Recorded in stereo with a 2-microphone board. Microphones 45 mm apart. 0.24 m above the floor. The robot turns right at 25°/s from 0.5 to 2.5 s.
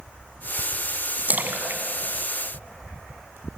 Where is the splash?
35° right (ahead or behind), 1.5 m; by 3.4 s 55° right (ahead or behind), 1.5 m.